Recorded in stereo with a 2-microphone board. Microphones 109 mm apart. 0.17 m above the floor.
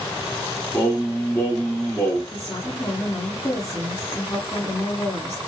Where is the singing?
15° left (ahead or behind), 1.5 m.